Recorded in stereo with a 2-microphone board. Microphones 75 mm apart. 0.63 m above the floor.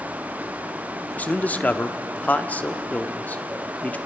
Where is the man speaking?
20° left (ahead or behind), 0.9 m.